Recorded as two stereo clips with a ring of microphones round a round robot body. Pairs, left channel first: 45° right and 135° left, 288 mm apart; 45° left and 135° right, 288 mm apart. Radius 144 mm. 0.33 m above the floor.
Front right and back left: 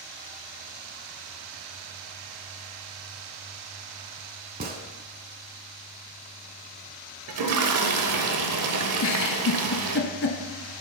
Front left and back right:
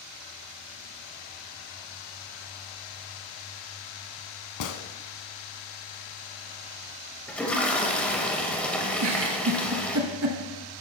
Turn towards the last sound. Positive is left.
turn(degrees=-90)